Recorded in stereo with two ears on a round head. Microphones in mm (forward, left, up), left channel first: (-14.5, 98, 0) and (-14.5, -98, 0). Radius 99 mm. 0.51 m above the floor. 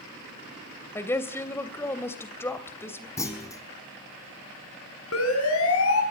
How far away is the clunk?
About 4 m.